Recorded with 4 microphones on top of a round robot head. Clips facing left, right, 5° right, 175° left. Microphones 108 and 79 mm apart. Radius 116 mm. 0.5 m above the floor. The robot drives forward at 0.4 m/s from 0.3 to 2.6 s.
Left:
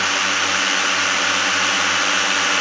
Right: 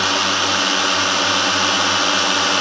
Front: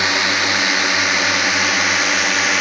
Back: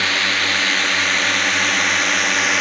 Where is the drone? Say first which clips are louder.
Right 3 dB, front 2 dB; 55° right; by 2.6 s 85° right.